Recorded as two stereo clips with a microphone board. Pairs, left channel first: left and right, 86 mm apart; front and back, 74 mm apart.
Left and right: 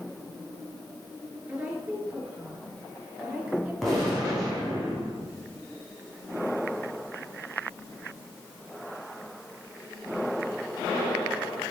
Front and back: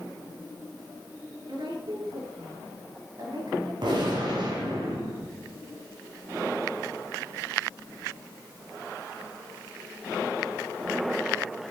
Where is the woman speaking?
165° right, 6 m; by 3.7 s 175° right, 7 m.